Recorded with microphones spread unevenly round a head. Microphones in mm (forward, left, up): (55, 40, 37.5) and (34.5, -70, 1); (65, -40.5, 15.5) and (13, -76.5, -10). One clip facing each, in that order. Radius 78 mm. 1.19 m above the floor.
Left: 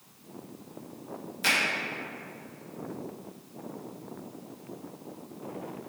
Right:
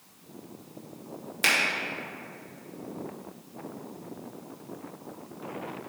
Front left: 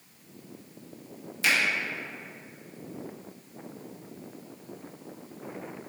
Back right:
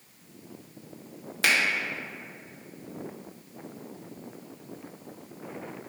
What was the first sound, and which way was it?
A finger snap, 125° right.